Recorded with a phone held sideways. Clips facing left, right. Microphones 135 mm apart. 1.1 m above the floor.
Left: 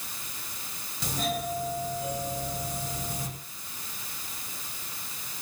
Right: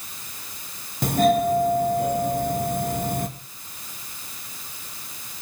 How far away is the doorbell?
About 2.5 m.